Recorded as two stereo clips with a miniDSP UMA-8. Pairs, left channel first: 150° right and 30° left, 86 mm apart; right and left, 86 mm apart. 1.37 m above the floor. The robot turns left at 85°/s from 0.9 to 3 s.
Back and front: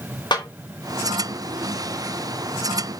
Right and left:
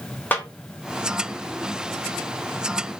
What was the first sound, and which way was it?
A snare drum, 155° right.